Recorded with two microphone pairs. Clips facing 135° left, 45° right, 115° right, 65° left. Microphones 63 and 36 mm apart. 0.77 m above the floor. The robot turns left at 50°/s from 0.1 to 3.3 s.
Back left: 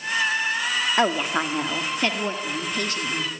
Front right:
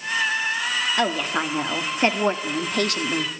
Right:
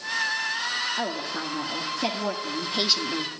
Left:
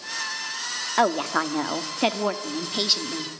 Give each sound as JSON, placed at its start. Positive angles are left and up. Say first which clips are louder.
{"t": 1.0, "sound": "a woman speaking", "louder": "back left 3 dB, left 8 dB", "azimuth_deg": 70, "distance_m": 1.5}